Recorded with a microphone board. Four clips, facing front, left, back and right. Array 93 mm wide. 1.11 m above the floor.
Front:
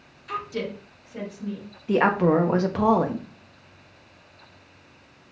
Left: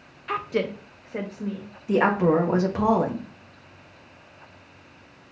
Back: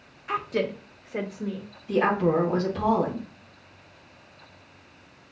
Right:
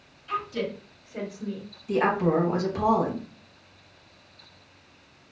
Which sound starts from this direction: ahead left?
A woman speaking, at 1.9 s.